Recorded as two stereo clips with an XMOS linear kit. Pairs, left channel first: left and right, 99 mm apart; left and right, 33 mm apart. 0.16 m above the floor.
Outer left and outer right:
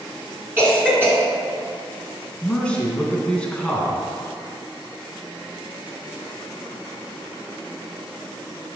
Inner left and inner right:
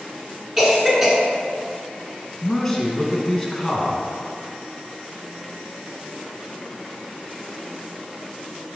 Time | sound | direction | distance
0.6 | a cough | 20° right (ahead or behind) | 2.5 m
2.4 | a man speaking | 10° left (ahead or behind) | 1.4 m